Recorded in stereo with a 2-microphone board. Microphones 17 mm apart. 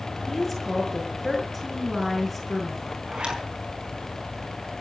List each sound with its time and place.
0.3 s a woman speaking: 5° left (ahead or behind), 6 m
3.1 s a zipper: 55° right (ahead or behind), 5 m